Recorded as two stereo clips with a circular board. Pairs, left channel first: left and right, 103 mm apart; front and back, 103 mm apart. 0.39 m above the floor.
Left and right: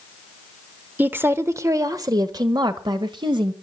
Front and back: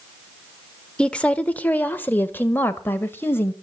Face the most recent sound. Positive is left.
turn(degrees=-65)